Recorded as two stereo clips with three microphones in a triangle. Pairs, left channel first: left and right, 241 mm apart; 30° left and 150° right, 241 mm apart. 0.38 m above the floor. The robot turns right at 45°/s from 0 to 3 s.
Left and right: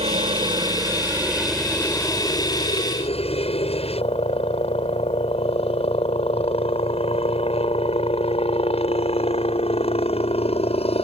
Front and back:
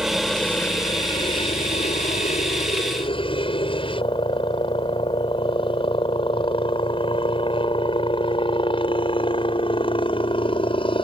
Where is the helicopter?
70° right; by 11.1 s 65° left.